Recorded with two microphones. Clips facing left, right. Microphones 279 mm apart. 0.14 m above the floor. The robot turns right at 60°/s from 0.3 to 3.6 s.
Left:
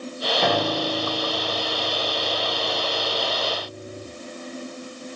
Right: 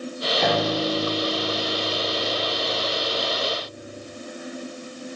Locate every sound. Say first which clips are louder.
0.4 s a piano: right 1 dB; 175° left, 4 m; by 4.1 s 10° left, 4 m